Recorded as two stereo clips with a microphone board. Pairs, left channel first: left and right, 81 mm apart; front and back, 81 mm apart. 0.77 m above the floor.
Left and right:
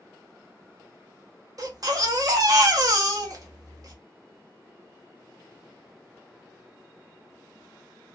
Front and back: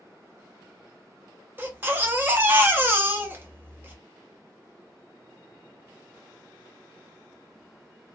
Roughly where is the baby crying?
Behind right.